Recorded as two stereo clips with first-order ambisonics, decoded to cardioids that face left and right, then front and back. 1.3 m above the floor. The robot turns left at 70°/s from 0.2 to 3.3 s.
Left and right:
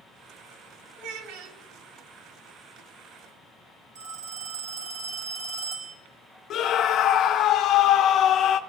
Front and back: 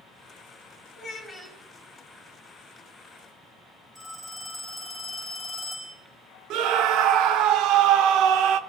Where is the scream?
145° left, 0.9 m.